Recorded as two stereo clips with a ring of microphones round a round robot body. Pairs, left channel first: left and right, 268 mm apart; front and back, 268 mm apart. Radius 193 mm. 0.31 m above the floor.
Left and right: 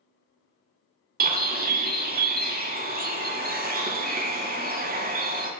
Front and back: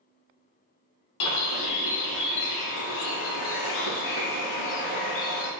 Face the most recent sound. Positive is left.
turn(degrees=-25)